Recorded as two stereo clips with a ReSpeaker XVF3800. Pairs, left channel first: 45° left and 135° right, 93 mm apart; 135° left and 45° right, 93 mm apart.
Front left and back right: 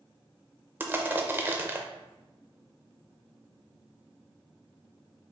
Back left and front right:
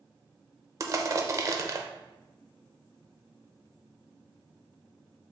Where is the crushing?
80° right, 0.6 m.